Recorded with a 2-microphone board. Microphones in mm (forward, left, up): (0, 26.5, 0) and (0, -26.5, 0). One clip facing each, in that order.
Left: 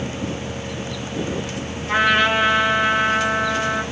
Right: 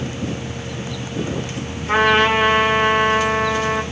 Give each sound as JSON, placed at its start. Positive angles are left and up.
{"t": 1.9, "sound": "a trumpet", "side_deg": -50, "distance_m": 1.4}